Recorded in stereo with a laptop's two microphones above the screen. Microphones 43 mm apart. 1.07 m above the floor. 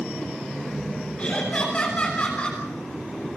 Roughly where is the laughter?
Left.